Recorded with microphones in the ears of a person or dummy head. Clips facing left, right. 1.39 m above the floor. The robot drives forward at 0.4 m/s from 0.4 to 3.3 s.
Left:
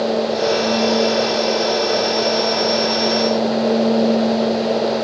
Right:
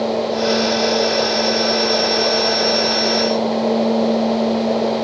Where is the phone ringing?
No phone ringing in this recording.